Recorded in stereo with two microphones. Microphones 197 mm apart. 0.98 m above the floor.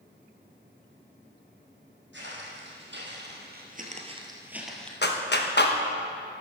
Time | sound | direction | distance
2.1 | footsteps | 70° right (ahead or behind) | 3 m
5.0 | a clap | 60° left (ahead or behind) | 1.0 m